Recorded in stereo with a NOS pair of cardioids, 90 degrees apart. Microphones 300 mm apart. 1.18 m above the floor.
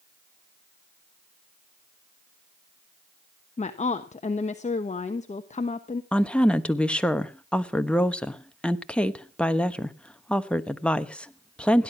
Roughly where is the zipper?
I don't hear a zipper.